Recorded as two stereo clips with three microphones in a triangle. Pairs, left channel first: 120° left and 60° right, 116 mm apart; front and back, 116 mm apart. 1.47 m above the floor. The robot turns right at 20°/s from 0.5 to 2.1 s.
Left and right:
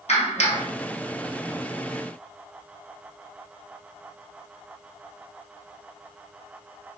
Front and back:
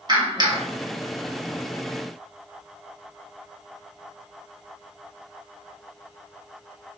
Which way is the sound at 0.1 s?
135° left.